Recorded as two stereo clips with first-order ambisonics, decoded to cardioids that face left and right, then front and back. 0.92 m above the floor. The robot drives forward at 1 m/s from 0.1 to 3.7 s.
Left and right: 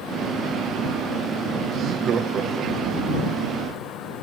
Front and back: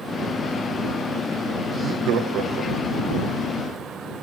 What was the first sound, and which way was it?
Laughter, 130° right.